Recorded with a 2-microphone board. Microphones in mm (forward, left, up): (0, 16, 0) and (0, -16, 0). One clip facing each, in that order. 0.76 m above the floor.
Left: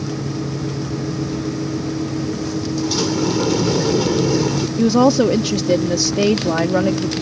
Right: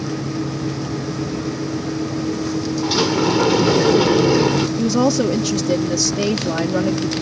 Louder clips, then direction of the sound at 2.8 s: Right 3 dB; 30° right (ahead or behind).